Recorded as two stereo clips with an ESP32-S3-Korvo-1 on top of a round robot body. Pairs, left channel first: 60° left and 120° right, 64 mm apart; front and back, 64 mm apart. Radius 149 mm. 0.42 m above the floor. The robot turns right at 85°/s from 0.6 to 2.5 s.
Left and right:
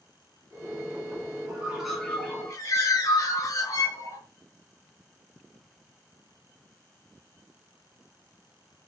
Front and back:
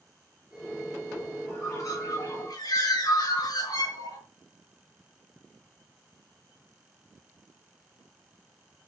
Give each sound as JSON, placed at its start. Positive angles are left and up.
{"t": 1.5, "sound": "a bird", "azimuth_deg": -65, "distance_m": 9.0}